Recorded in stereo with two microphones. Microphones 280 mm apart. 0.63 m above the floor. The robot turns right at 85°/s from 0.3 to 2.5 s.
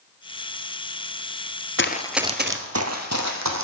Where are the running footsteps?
40° left (ahead or behind), 0.7 m; by 3.6 s 65° right (ahead or behind), 1.8 m.